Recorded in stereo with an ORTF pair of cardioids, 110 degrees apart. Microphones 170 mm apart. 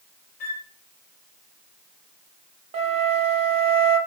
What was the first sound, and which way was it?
A flute, 60° left.